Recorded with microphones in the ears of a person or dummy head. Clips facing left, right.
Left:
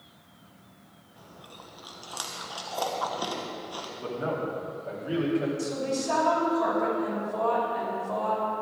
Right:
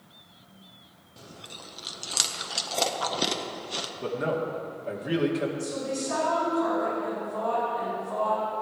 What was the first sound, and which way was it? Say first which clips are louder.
Chewing: right 3 dB; 30° right (ahead or behind).